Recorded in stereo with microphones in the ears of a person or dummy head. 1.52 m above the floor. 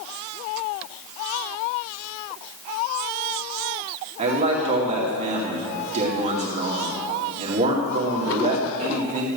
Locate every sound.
4.2 s a man speaking: 30° right (ahead or behind), 2.5 m